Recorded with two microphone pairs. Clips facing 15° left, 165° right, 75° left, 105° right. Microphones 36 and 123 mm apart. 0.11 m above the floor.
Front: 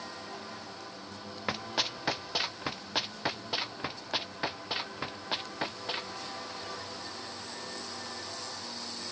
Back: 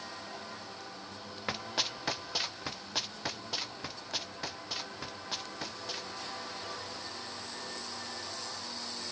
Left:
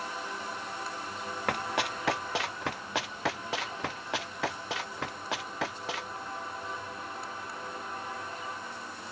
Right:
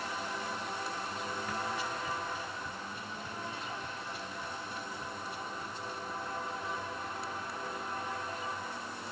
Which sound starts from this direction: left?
Running footsteps, at 1.5 s.